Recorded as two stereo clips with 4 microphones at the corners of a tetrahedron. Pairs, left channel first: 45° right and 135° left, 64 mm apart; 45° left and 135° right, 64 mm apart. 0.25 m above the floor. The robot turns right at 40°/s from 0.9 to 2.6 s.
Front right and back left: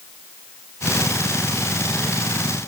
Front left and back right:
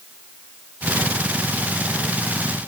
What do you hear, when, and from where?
Only background noise.